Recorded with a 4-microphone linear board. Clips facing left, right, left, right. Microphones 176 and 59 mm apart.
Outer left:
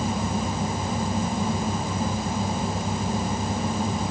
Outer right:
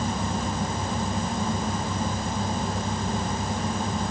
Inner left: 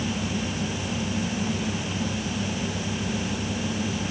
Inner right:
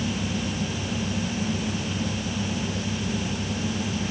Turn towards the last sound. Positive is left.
No sound to turn to.